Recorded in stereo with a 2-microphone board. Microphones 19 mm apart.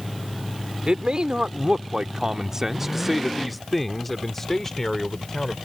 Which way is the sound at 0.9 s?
55° right (ahead or behind).